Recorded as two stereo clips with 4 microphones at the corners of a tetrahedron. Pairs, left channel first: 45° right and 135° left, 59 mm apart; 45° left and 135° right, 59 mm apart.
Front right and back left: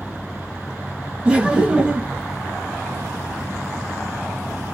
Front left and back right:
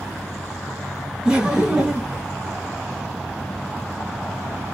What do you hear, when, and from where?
1.2 s laughter: 170° left, 1.3 m